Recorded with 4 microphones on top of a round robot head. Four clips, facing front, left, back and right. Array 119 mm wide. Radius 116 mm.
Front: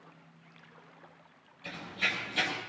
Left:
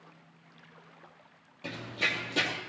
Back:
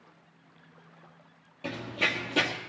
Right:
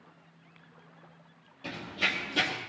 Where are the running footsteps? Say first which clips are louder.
Right 1 dB, back 5 dB; 165° left, 2 m.